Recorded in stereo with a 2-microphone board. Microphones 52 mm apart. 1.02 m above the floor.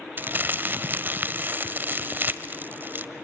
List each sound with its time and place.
0.2 s crumpling: 40° right (ahead or behind), 1.2 m